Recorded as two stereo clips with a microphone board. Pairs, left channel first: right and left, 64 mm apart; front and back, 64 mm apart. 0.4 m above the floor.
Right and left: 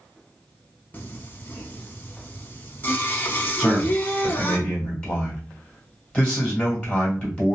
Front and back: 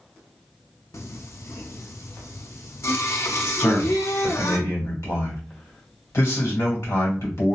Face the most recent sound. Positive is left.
turn(degrees=-20)